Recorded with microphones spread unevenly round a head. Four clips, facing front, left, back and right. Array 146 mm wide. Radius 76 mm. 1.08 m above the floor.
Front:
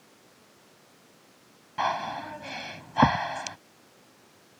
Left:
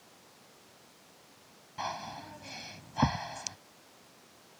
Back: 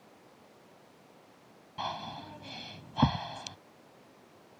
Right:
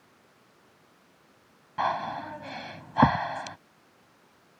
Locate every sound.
1.8 s breathing: 45° right